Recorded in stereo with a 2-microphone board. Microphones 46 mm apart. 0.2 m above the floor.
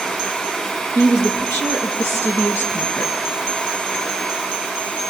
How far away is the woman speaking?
About 5 m.